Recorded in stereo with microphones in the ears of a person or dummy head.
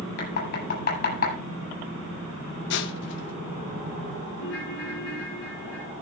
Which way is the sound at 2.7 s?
60° left (ahead or behind).